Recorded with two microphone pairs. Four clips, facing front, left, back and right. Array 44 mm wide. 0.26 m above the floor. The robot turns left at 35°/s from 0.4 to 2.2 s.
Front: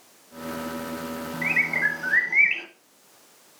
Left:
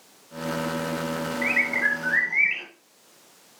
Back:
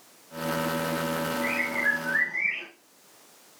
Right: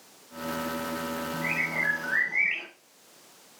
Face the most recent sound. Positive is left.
turn(degrees=20)